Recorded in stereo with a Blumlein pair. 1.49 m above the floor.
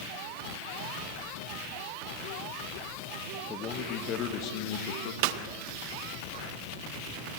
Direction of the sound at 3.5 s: 25° left.